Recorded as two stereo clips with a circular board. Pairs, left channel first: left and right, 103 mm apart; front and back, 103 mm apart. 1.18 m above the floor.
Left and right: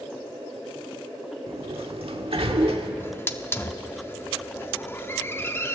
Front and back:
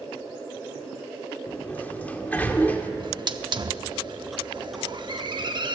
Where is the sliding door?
75° right, 1.5 m.